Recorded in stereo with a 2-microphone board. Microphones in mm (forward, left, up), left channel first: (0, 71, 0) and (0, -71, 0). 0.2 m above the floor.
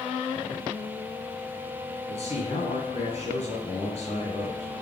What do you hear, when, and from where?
2.1 s a man speaking: 60° left (ahead or behind), 3 m